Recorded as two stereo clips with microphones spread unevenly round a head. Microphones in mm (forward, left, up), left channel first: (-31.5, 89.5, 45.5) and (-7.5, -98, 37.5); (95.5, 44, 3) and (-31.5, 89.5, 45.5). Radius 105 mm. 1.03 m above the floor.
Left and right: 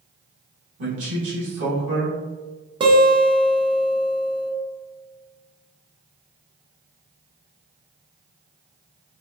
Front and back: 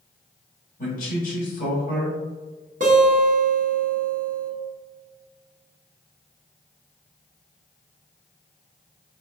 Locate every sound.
0.8 s a man speaking: 55° right, 1.4 m
2.8 s a guitar: 145° right, 0.6 m